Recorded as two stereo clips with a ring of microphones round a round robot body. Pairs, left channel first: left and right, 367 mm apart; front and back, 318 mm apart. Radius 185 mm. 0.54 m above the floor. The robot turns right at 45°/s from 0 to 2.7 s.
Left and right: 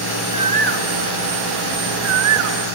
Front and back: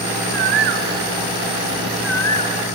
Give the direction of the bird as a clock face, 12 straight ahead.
6 o'clock.